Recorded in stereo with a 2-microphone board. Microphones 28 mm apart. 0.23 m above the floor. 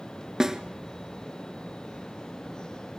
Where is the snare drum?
20° right (ahead or behind), 1.0 m.